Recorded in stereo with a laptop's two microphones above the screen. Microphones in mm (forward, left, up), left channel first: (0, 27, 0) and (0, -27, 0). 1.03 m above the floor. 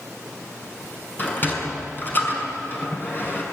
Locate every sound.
1.2 s a sliding door: 35° left (ahead or behind), 6.5 m